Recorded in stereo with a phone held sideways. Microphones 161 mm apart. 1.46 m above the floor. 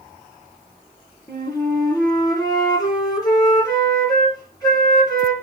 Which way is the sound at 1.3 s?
20° left (ahead or behind).